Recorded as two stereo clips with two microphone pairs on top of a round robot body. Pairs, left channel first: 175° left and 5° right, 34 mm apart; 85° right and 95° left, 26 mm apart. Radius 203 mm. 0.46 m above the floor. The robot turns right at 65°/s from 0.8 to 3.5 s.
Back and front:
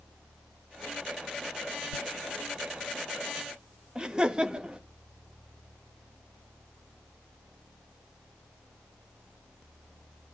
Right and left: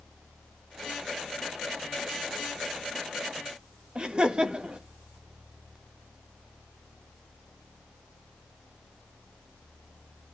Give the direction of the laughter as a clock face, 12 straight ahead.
10 o'clock.